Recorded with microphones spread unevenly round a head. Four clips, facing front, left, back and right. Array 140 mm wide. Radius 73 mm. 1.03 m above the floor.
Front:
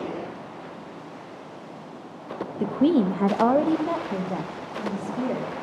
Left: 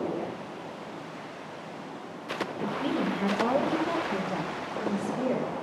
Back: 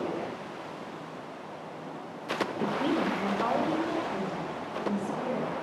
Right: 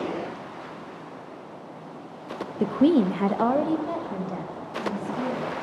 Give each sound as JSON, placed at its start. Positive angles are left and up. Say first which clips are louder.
{"t": 2.6, "sound": "a woman speaking", "louder": "right 11 dB, front 10 dB", "azimuth_deg": -75, "distance_m": 0.6}